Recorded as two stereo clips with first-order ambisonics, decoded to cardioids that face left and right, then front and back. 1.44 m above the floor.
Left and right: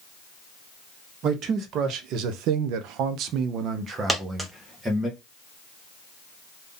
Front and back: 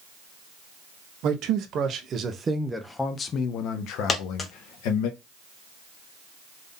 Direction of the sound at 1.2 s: 140° right.